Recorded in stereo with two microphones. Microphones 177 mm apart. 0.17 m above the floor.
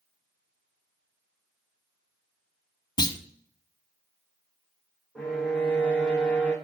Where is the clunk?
25° left (ahead or behind), 0.7 m.